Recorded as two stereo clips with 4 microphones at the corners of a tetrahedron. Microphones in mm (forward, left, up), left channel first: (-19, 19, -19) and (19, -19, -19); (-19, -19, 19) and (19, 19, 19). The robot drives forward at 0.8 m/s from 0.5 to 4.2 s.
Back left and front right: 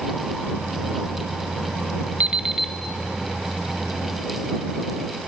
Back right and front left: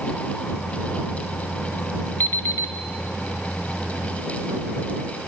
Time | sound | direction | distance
2.2 | an alarm clock | 95° right | 0.5 m